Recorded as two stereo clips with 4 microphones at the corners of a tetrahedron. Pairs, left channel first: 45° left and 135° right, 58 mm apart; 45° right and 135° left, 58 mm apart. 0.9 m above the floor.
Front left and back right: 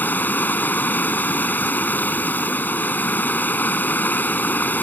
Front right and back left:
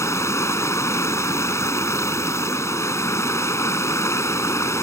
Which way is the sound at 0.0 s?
10° right.